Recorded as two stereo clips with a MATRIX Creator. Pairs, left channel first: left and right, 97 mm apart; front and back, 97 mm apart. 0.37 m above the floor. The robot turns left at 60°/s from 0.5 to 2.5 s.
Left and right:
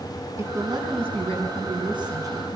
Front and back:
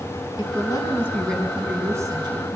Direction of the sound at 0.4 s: 35° right.